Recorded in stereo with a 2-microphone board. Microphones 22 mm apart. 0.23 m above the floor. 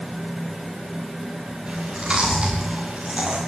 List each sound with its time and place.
1.7 s chewing: 45° right (ahead or behind), 9 m